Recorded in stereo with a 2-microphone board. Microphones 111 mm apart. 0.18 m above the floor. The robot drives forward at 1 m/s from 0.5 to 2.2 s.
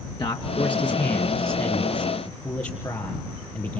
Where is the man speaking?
40° left (ahead or behind), 2.5 m; by 3.8 s 25° left (ahead or behind), 3.5 m.